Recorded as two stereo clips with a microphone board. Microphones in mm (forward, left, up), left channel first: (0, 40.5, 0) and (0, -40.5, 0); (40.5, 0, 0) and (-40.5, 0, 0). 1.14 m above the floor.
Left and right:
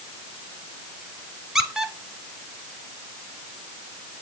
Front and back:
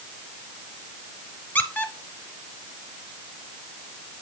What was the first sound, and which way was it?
A squeak, 15° right.